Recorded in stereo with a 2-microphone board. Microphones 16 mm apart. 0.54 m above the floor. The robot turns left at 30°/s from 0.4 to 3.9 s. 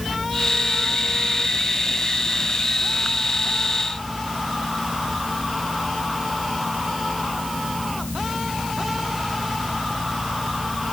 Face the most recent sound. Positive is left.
No sound to turn to.